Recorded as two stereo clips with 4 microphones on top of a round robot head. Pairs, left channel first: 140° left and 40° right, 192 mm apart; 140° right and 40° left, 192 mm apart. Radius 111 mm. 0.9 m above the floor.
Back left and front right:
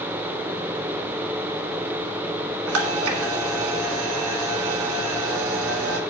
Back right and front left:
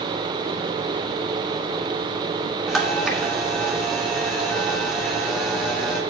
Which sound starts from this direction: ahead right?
A camera shutter, at 2.7 s.